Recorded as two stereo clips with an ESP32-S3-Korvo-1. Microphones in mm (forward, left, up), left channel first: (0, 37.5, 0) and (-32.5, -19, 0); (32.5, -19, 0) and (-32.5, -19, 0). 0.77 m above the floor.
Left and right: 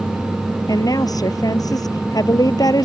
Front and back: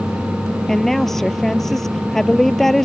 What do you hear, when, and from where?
0.7 s a woman speaking: 85° left